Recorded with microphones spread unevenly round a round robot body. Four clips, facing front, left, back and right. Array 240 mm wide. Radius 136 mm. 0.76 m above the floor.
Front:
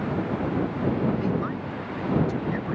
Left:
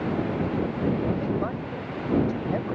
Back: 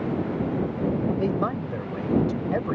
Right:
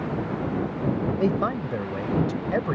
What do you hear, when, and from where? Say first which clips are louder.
1.2 s a man speaking: right 4 dB, back 2 dB; 125° right